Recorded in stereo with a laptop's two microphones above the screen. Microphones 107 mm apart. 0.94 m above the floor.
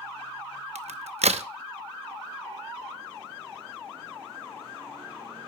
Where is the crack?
75° right (ahead or behind), 0.6 m.